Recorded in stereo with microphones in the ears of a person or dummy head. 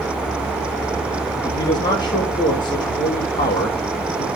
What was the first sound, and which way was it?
A man speaking, 20° left (ahead or behind).